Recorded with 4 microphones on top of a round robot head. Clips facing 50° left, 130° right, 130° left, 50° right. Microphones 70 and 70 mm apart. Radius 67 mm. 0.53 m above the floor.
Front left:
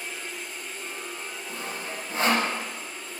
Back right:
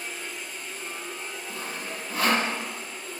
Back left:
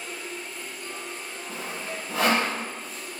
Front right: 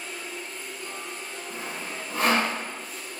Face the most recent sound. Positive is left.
turn(degrees=115)